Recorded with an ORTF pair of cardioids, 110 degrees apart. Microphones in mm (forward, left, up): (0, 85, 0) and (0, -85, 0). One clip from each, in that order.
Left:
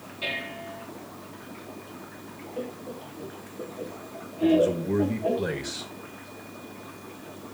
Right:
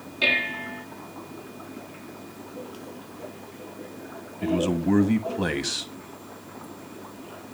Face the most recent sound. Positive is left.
turn(degrees=-65)